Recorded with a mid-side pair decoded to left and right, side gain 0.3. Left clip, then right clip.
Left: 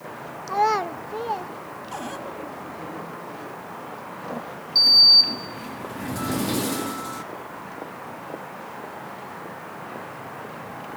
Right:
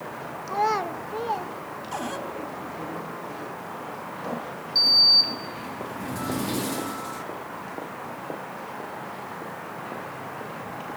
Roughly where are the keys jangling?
No keys jangling in this recording.